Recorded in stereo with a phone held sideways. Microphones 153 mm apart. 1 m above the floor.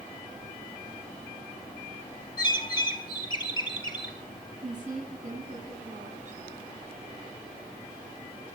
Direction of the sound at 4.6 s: 55° right (ahead or behind).